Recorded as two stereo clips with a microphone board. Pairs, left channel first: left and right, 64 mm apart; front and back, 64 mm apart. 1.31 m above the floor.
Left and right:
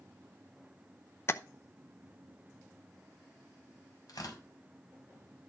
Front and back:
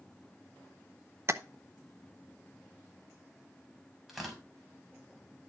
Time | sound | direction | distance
1.3 | tapping | 140° left | 0.7 m
4.1 | tearing paper | 95° left | 4 m